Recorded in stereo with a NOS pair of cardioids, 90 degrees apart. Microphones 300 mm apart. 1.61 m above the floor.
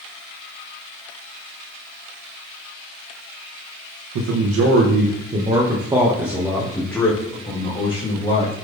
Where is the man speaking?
60° right, 1.7 m; by 8.6 s 20° left, 4 m.